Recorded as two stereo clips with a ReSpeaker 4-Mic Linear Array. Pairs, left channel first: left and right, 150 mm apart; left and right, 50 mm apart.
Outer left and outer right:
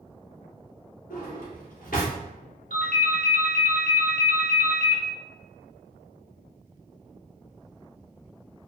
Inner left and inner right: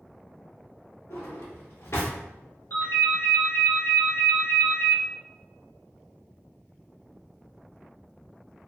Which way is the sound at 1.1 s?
70° left (ahead or behind).